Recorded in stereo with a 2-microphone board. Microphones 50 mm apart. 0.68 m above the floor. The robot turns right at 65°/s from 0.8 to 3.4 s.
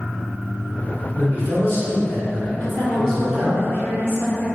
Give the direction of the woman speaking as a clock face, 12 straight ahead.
10 o'clock.